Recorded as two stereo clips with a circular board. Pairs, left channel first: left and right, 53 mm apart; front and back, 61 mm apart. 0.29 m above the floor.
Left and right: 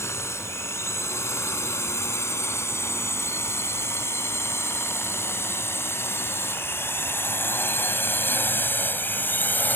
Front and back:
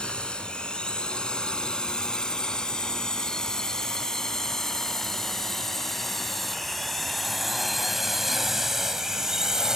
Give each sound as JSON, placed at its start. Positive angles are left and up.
{"t": 0.0, "sound": "a drone", "azimuth_deg": 70}